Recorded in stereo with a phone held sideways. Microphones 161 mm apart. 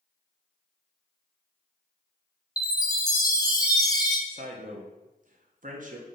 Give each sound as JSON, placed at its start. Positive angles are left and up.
{"t": 2.6, "sound": "a chime", "side_deg": 20, "distance_m": 0.6}
{"t": 4.3, "sound": "a man speaking", "side_deg": -55, "distance_m": 0.7}